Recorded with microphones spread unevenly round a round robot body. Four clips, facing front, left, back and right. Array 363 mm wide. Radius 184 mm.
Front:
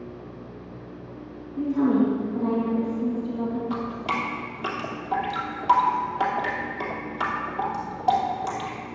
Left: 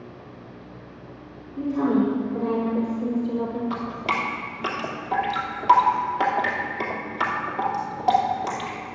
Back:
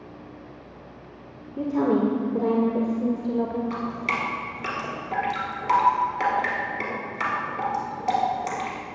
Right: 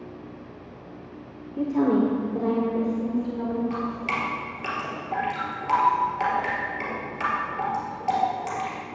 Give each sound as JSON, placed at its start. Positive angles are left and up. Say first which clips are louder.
{"t": 1.6, "sound": "a woman speaking", "louder": "even, front 1 dB", "azimuth_deg": -160, "distance_m": 1.7}
{"t": 3.7, "sound": "dripping", "louder": "left 1 dB, front 1 dB", "azimuth_deg": 115, "distance_m": 2.5}